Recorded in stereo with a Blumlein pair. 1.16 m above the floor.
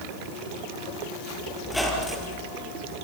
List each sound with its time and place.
1.6 s a squeak: 5° left, 4.5 m